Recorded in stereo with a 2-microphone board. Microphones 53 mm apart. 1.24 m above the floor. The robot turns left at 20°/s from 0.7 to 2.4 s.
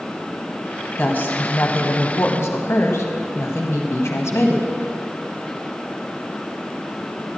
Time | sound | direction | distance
1.0 | a woman speaking | 20° left (ahead or behind) | 0.8 m